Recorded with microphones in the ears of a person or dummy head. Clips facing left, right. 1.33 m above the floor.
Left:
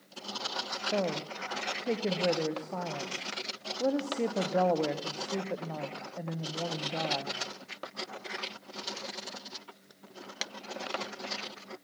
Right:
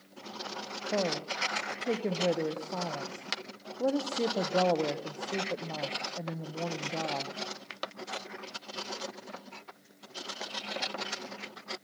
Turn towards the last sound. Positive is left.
turn(degrees=5)  # may be behind; listen again after turning